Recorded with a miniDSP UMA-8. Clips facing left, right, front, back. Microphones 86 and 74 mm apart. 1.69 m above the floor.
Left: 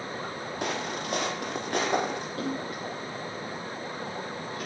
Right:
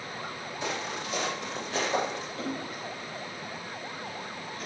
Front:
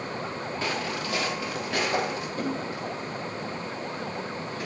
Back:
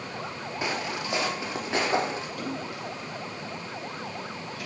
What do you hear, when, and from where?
0.6 s footsteps: 110° left, 4 m; by 2.3 s 120° left, 5 m
2.4 s a splash: 60° left, 8.5 m